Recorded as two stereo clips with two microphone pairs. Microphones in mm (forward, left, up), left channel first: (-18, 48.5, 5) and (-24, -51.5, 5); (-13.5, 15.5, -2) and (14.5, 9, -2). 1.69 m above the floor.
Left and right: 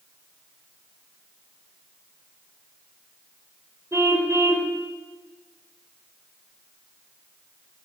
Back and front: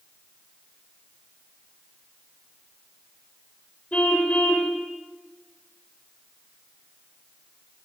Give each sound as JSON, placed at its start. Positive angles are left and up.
{"t": 3.9, "sound": "a car horn", "azimuth_deg": -155, "distance_m": 4.5}